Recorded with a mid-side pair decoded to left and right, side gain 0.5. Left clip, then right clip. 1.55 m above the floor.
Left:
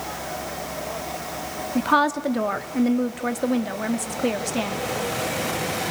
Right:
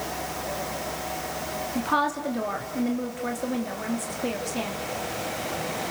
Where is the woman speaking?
40° left, 3 m.